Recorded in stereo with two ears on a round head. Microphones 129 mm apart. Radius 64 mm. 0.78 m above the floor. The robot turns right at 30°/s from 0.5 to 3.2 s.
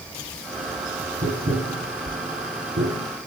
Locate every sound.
1.2 s tapping: 55° right (ahead or behind), 4 m; by 3.1 s 70° right (ahead or behind), 4 m